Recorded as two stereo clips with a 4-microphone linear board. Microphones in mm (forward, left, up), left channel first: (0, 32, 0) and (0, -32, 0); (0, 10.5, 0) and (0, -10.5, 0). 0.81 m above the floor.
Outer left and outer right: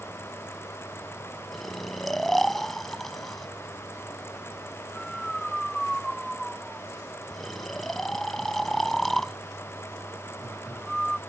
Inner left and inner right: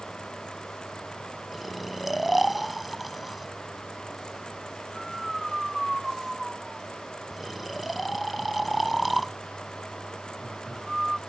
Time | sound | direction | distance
1.5 | snoring | 5° left (ahead or behind) | ?